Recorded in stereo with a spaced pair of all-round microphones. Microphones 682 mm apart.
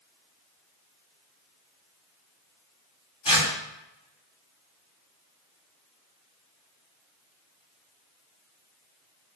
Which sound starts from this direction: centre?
Tearing paper, at 3.2 s.